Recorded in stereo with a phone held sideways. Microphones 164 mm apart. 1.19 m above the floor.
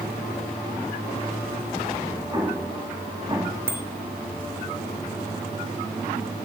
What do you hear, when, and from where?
2.3 s an explosion: 25° right (ahead or behind), 2.5 m
3.7 s a bicycle bell: 15° right (ahead or behind), 2.5 m